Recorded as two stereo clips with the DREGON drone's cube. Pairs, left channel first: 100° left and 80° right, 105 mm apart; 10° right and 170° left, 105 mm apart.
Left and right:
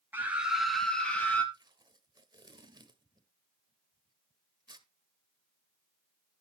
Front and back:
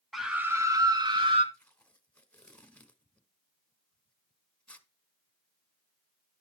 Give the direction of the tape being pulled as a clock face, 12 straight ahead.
3 o'clock.